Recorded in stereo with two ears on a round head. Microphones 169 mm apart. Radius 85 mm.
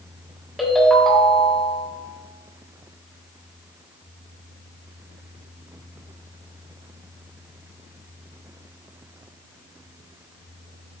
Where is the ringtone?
Centre (ahead or behind), 1.4 m.